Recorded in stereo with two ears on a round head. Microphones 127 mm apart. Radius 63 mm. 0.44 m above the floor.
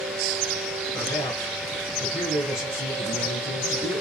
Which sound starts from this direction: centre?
A man speaking, at 0.9 s.